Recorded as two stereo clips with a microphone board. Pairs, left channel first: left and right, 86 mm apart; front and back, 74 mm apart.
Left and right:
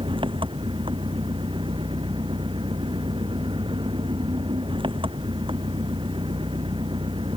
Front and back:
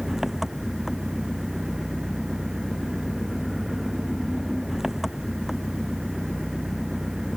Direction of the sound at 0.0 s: 95° right.